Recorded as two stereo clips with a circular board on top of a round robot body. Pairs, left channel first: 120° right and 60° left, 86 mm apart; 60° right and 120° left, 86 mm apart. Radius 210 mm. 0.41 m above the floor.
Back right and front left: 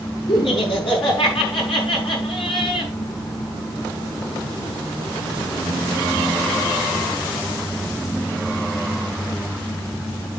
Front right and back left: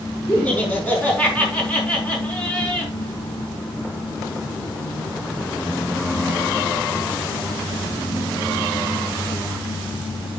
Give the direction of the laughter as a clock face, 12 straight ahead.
4 o'clock.